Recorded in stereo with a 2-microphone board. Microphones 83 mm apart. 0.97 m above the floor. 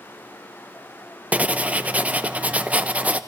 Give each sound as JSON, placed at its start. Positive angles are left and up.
{"t": 1.3, "sound": "writing", "side_deg": -15, "distance_m": 0.6}